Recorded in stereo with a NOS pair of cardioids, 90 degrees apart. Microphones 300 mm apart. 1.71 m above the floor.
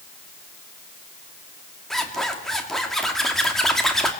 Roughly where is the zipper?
Ahead.